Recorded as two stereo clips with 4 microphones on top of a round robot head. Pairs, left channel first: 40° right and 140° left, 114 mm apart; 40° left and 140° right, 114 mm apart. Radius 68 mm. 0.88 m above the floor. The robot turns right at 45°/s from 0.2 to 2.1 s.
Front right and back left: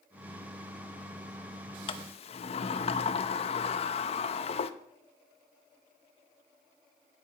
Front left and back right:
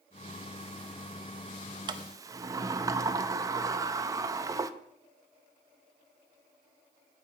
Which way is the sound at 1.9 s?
85° right.